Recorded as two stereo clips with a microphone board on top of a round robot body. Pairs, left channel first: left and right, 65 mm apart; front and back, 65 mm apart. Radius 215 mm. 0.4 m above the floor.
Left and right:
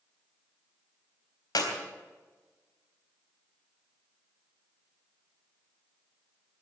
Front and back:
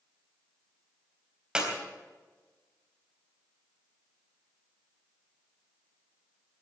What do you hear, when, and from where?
1.6 s a clap: 100° left, 3.5 m